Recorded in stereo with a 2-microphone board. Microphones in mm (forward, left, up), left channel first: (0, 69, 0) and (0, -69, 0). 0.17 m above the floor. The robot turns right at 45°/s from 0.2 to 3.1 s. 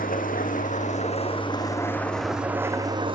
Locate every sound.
0.0 s an engine running: 85° left, 3.5 m; by 3.1 s 140° right, 3.5 m